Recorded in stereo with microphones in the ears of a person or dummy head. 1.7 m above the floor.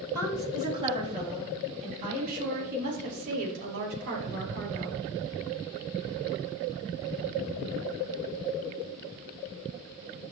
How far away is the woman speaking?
About 4 m.